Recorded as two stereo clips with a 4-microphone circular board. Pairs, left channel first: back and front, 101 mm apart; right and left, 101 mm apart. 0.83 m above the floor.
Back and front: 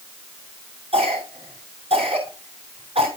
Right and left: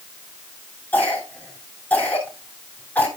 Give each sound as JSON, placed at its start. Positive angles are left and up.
{"t": 0.9, "sound": "a cough", "azimuth_deg": -15, "distance_m": 6.5}